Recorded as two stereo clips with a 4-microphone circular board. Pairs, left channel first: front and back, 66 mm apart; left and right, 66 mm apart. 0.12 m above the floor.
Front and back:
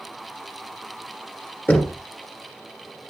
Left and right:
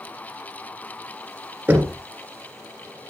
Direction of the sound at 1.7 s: 40° right.